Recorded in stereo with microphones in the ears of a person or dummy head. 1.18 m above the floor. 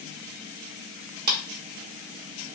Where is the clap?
45° right (ahead or behind), 0.5 m.